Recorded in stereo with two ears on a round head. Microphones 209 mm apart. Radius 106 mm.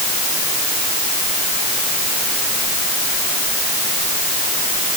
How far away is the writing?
I don't hear writing.